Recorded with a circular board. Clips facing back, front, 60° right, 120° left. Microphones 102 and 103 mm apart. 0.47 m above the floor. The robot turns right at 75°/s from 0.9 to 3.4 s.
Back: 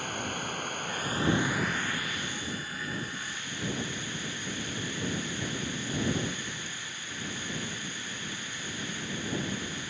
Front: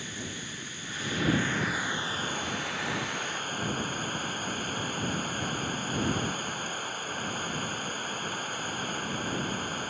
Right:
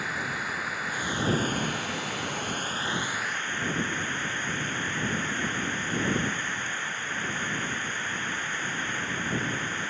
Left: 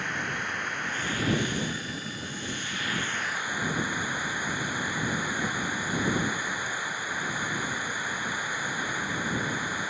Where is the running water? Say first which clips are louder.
Back 5 dB, even; 145° right; by 9.9 s 40° left.